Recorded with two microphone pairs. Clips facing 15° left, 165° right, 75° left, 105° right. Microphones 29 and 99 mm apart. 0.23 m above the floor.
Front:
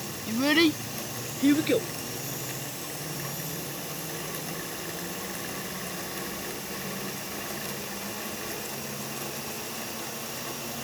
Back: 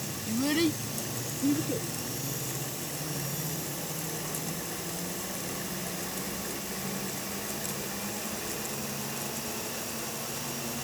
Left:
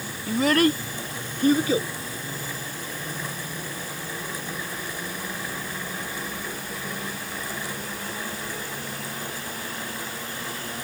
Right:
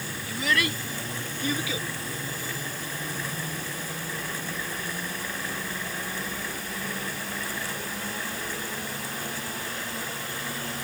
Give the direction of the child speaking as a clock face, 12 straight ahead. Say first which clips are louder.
Front 5 dB, left 8 dB; 10 o'clock.